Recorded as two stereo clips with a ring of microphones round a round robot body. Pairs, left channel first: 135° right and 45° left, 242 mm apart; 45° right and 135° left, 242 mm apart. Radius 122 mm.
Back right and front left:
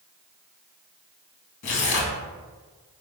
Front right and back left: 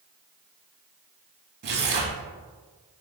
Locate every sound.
1.6 s tearing paper: 175° right, 0.7 m